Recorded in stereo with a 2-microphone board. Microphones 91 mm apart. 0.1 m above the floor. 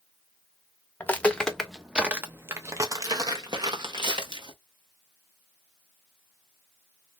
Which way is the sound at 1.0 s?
20° left (ahead or behind).